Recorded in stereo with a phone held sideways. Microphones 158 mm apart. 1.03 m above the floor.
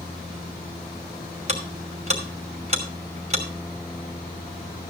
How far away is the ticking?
About 2.5 m.